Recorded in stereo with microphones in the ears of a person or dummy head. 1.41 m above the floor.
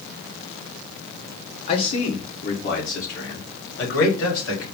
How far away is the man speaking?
About 1.3 m.